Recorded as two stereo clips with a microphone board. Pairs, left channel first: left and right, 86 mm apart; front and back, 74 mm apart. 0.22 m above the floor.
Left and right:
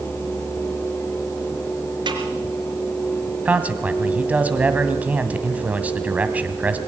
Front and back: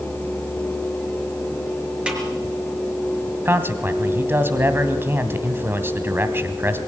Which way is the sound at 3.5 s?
150° right.